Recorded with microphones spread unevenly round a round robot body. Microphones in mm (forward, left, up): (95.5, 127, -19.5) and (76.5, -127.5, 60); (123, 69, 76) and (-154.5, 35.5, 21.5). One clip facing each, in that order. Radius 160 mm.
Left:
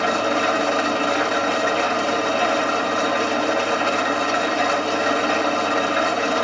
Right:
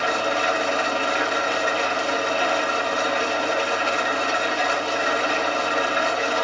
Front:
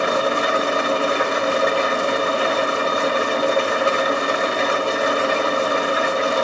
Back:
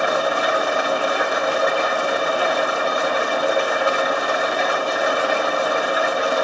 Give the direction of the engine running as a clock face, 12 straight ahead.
10 o'clock.